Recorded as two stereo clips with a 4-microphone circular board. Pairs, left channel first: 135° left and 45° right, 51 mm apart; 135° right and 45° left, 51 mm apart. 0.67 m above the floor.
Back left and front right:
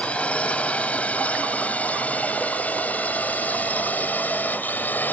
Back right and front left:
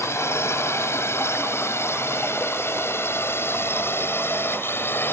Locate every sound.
0.0 s a drone: 160° right; by 5.1 s 170° right